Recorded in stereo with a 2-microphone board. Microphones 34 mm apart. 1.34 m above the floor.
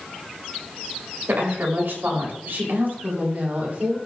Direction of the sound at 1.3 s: 80° right.